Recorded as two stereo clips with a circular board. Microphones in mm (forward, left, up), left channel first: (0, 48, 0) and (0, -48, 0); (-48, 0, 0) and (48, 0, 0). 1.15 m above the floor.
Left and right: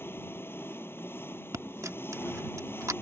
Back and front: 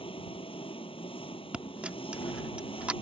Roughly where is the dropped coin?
Right.